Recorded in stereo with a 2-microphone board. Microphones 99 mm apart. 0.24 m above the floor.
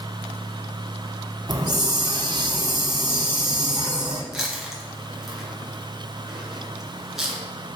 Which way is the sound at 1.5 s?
45° right (ahead or behind).